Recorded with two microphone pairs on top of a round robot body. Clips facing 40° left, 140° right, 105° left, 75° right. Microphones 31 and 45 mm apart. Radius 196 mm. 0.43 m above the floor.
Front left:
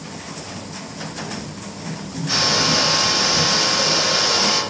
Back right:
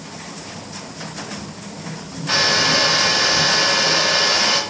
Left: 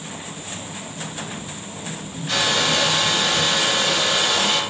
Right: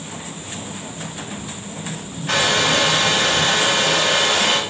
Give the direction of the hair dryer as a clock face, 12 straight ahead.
3 o'clock.